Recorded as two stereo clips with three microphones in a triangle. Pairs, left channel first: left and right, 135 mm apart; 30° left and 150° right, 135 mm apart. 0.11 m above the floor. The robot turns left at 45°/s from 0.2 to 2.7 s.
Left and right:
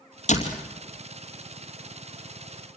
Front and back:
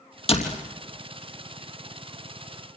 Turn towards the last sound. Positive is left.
turn(degrees=-40)